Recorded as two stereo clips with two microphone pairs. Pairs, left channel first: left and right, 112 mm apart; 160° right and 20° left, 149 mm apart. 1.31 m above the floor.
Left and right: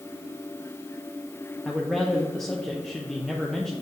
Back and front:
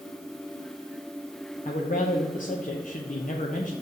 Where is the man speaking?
175° left, 0.7 m.